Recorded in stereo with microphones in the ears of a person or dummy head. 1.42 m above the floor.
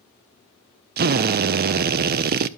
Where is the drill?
50° right (ahead or behind), 0.6 m.